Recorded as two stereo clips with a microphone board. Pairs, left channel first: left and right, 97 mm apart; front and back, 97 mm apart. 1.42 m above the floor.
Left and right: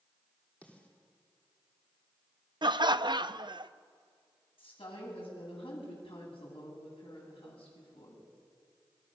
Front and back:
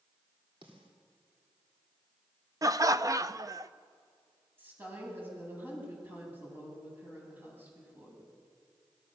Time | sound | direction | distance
0.6 | a snare drum | 165° left | 3.5 m
2.6 | laughter | 130° right | 0.7 m
4.6 | a woman speaking | 110° left | 9 m